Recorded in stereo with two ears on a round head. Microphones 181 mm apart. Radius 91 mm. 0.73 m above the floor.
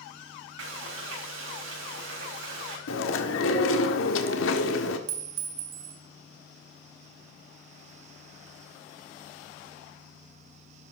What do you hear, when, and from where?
0.6 s frying: 80° right, 4.5 m
2.9 s chewing: 75° left (ahead or behind), 1.5 m
5.1 s a clink: 80° right, 1.9 m